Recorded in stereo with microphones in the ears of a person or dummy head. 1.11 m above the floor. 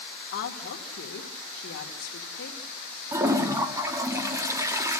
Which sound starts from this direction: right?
A toilet flushing, at 3.1 s.